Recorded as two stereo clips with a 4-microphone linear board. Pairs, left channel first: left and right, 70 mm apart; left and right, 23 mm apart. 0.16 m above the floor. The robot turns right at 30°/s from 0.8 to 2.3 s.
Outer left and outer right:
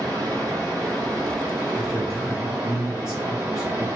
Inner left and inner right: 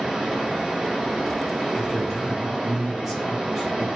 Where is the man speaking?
5° right (ahead or behind), 1.3 m; by 3.9 s 10° right (ahead or behind), 1.3 m.